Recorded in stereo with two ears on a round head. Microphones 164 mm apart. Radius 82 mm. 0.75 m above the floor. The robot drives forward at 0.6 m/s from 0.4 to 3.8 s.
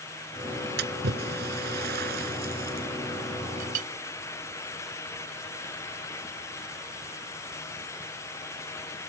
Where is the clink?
50° right (ahead or behind).